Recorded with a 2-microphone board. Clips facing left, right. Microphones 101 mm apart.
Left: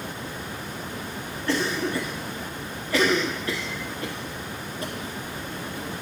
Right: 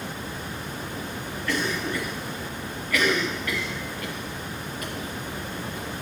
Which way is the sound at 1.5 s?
30° left (ahead or behind).